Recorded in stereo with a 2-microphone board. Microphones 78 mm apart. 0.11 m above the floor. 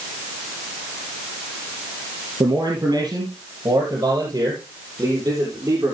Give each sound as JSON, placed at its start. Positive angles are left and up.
{"t": 2.4, "sound": "a man speaking", "side_deg": -60, "distance_m": 3.0}